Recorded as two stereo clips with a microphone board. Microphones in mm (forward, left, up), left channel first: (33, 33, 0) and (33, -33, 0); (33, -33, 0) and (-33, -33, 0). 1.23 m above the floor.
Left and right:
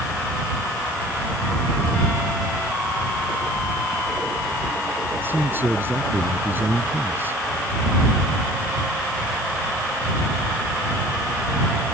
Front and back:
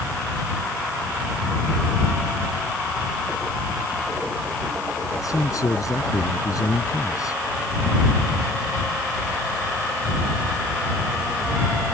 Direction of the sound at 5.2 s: 35° right.